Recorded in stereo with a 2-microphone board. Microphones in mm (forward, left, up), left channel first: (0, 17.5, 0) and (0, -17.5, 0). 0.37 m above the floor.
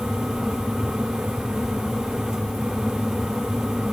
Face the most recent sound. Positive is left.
No sound to turn to.